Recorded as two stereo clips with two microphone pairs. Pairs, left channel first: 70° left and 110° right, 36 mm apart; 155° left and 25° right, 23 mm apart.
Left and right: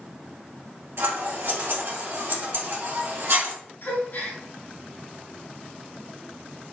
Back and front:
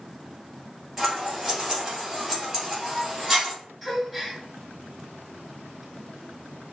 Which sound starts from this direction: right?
Scissors, at 1.0 s.